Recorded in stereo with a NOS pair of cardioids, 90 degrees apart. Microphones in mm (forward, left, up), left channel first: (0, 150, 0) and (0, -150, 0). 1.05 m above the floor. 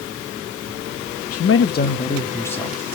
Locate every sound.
1.3 s a man speaking: 55° left, 1.1 m; by 2.8 s straight ahead, 2 m